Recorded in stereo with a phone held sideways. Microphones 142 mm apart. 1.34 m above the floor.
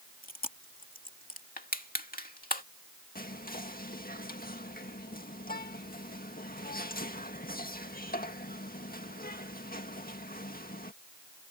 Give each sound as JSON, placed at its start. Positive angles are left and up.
{"t": 0.2, "sound": "chewing", "side_deg": 70}
{"t": 1.6, "sound": "crushing", "side_deg": 75}
{"t": 3.1, "sound": "whispering", "side_deg": 80}